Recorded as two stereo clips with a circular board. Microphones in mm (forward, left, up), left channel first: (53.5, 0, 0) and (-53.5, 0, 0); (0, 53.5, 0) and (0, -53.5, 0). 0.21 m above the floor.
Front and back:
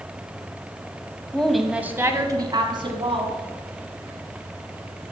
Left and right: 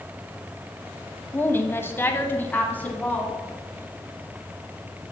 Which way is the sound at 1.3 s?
65° left.